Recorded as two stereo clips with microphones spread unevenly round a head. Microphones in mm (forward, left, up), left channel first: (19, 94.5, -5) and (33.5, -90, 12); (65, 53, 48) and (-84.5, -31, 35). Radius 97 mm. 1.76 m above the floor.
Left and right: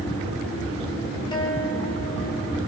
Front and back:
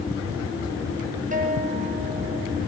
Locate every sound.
1.3 s a guitar: 165° left, 6 m